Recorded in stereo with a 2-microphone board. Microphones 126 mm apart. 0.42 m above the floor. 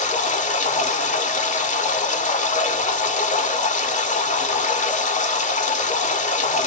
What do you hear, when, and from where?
0.0 s running water: 70° left (ahead or behind), 0.7 m